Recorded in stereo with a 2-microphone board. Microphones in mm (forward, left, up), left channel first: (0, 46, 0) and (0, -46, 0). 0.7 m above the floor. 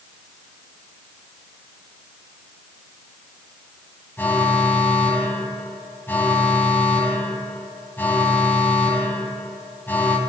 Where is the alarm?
20° left (ahead or behind), 8.5 m.